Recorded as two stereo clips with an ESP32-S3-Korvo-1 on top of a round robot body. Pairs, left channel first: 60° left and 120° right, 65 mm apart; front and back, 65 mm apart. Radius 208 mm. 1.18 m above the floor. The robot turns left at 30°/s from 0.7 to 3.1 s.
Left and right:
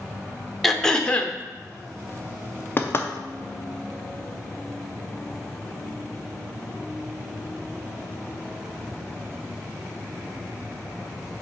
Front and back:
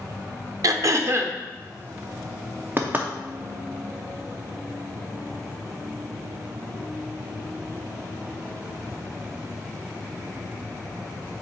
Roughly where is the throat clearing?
Behind left.